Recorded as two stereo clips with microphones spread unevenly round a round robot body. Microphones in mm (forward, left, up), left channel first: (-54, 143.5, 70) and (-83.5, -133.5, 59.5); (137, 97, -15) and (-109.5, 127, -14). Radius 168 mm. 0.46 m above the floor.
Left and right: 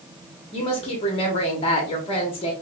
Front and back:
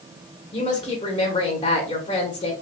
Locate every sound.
0.5 s a woman speaking: 35° left, 0.9 m